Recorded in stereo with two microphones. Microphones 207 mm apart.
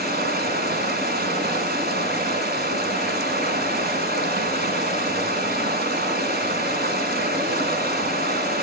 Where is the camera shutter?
No camera shutter in this recording.